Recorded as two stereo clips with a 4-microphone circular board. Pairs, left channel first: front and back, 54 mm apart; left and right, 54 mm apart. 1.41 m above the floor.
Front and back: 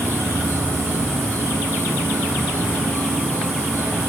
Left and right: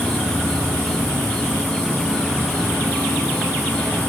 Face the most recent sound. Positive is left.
turn(degrees=165)